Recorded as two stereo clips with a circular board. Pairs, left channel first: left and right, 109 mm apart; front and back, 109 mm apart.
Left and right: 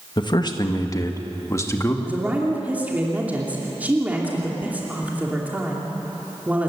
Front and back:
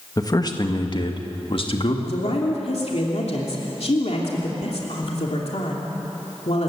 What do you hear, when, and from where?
0.2 s a man speaking: 55° left, 1.6 m; by 1.9 s 25° left, 2.5 m
2.0 s a woman speaking: 15° right, 2.5 m